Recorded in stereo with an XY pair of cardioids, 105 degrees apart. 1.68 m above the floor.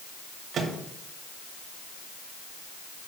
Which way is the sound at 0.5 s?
55° right.